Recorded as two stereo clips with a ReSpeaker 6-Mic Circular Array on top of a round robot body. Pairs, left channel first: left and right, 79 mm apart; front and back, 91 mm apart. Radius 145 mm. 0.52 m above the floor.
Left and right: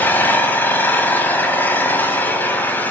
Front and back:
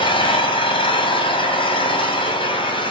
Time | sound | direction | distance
0.0 | an engine running | 25° left | 4 m